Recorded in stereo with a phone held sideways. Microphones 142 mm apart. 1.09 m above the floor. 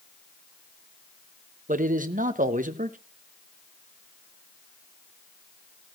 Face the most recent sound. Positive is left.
turn(degrees=-70)  # may be behind; listen again after turning